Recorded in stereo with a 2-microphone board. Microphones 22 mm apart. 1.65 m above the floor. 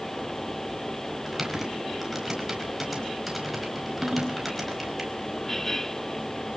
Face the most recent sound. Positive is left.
turn(degrees=-50)  # may be behind; listen again after turning